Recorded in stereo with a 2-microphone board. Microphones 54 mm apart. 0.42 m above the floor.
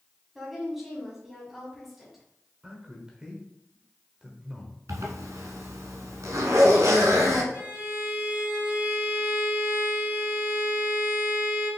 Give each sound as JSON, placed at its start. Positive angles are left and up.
{"t": 0.3, "sound": "a woman speaking", "side_deg": -5, "distance_m": 3.0}
{"t": 2.6, "sound": "a man speaking", "side_deg": -15, "distance_m": 1.4}
{"t": 4.9, "sound": "a zipper", "side_deg": -75, "distance_m": 1.3}
{"t": 7.5, "sound": "a violin", "side_deg": -45, "distance_m": 3.5}